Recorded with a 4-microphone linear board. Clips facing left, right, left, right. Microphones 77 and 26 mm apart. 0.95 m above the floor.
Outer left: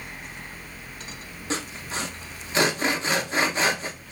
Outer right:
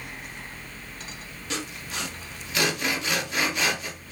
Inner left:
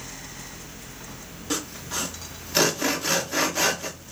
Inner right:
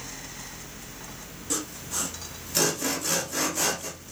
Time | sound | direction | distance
1.5 | sawing | 30° left (ahead or behind) | 0.6 m